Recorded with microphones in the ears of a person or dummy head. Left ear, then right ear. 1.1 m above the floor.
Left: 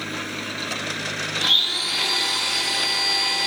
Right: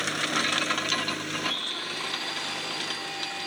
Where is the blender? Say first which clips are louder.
Left 11 dB; 45° left (ahead or behind), 3 m.